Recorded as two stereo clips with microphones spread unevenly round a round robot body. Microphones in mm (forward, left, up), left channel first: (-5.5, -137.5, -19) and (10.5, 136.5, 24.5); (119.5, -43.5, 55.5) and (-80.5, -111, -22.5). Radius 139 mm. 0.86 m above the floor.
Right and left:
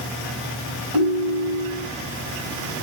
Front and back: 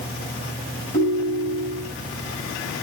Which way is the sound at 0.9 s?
85° left.